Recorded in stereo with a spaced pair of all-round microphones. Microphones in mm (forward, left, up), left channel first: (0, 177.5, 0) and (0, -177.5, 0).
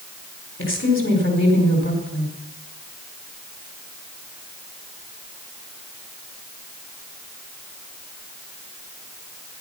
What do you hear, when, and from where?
0.6 s a woman speaking: 35° left (ahead or behind), 4.5 m